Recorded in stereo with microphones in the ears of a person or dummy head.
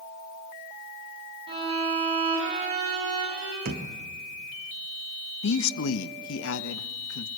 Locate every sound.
1.5 s a violin: 25° right (ahead or behind), 8 m
3.6 s a thud: 55° right (ahead or behind), 1.8 m
5.4 s a man speaking: 70° left (ahead or behind), 1.1 m